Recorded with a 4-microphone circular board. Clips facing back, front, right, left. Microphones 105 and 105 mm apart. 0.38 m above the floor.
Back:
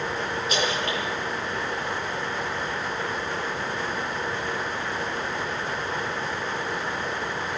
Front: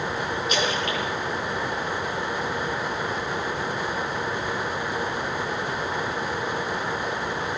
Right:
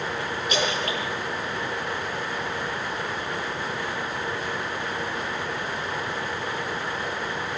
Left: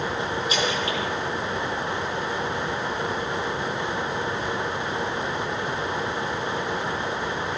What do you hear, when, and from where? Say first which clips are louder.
0.5 s a splash: front 1 dB, right 2 dB; 125° right, 7 m